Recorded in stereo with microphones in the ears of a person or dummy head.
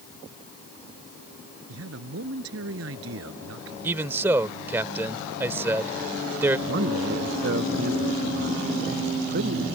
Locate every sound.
1.7 s a man speaking: 80° right
3.8 s a man speaking: 10° right (ahead or behind)
6.7 s a man speaking: 60° right (ahead or behind)